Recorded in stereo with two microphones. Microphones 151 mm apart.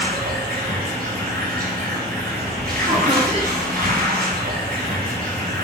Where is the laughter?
40° right (ahead or behind), 2.5 m.